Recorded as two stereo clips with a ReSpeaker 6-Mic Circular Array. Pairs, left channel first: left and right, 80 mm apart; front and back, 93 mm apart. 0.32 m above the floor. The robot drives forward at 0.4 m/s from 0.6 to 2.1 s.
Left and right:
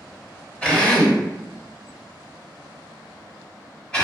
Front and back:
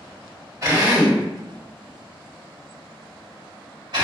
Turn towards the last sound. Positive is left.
turn(degrees=165)